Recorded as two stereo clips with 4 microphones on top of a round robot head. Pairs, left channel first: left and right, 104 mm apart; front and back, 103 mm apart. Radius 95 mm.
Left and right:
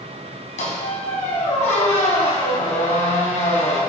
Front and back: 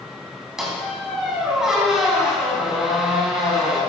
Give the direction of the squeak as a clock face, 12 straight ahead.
9 o'clock.